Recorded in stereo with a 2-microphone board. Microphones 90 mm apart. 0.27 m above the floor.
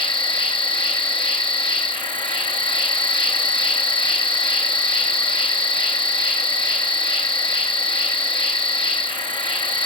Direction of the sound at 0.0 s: 70° left (ahead or behind).